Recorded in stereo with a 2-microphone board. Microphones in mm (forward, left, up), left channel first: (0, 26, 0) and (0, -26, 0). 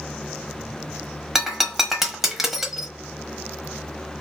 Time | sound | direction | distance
1.4 | breaking glass | 5° right (ahead or behind) | 1.1 m